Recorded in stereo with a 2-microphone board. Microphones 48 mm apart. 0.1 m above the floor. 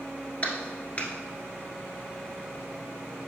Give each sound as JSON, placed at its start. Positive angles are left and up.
{"t": 0.4, "sound": "a clap", "side_deg": 30, "distance_m": 1.2}